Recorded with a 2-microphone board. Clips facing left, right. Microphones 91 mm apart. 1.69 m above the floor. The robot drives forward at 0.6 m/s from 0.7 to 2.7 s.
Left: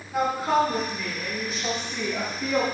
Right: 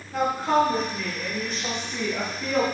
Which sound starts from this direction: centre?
A woman speaking, at 0.1 s.